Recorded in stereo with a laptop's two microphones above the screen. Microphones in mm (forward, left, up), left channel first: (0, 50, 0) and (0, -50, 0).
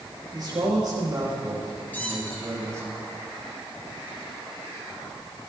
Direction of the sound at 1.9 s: 20° left (ahead or behind).